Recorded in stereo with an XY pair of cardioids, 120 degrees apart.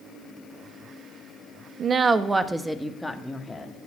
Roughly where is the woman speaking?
Ahead right.